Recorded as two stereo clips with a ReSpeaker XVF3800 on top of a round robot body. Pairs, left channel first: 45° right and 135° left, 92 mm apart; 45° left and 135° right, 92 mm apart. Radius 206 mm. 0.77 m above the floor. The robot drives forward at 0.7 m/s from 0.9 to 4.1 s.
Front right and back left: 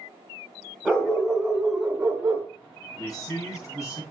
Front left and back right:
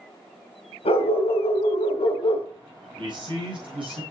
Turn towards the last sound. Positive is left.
turn(degrees=-105)